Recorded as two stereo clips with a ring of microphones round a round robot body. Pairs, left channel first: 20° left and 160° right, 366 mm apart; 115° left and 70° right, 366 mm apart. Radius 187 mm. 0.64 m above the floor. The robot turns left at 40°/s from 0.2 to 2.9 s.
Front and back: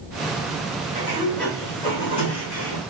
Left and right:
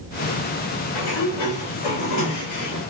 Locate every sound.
0.9 s a sliding door: 125° left, 1.8 m; by 2.8 s 55° left, 1.8 m